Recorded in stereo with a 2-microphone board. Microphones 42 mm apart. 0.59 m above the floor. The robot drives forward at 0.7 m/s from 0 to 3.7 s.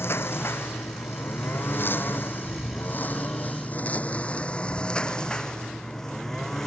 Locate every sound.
0.0 s a lawn mower: 65° left (ahead or behind); by 6.7 s 10° left (ahead or behind)